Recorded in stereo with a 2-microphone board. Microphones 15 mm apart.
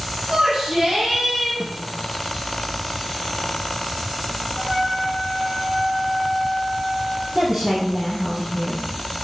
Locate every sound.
0.3 s a shout: 60° right (ahead or behind), 4 m
1.6 s a snare drum: 25° right (ahead or behind), 1.7 m
4.6 s a trumpet: 50° right (ahead or behind), 2.5 m
7.3 s a woman speaking: 50° right (ahead or behind), 4 m